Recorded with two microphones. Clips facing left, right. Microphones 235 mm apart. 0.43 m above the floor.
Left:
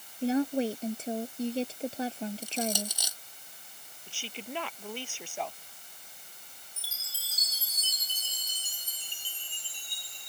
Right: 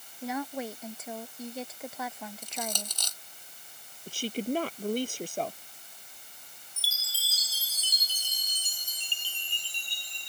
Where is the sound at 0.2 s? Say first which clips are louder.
Left 8 dB; 30° left (ahead or behind).